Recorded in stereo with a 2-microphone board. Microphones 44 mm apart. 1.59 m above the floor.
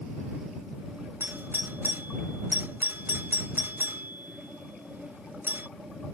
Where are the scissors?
No scissors in this recording.